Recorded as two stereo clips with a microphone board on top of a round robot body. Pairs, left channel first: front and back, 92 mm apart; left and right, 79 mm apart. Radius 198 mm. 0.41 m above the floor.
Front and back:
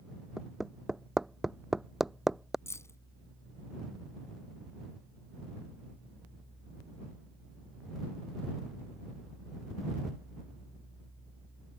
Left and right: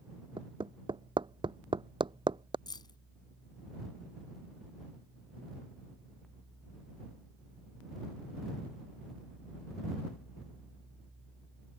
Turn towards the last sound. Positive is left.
turn(degrees=60)